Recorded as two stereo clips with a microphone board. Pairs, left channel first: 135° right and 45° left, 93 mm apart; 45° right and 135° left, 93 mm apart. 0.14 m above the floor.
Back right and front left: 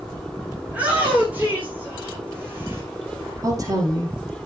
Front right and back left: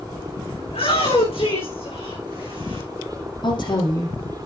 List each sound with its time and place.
0.7 s a shout: 30° right, 8.5 m; by 2.8 s 20° right, 8 m
3.4 s a woman speaking: 10° right, 5 m